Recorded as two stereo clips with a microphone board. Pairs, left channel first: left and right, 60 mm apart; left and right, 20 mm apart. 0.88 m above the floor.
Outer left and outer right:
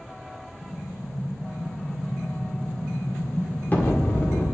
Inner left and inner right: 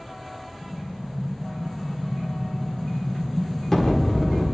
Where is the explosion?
35° left (ahead or behind), 1.8 m.